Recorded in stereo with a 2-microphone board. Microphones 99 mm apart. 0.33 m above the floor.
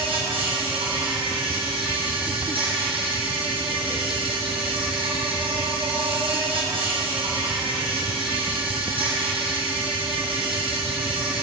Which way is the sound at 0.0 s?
65° right (ahead or behind).